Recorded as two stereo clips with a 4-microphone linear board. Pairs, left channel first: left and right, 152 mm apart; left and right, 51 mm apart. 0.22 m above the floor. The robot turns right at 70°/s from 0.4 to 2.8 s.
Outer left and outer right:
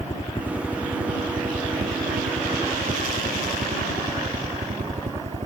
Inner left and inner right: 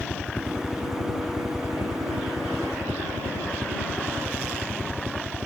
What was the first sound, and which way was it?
A helicopter, 140° left.